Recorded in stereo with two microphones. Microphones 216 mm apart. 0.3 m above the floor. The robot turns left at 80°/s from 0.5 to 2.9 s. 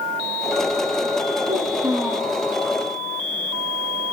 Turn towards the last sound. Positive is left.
turn(degrees=125)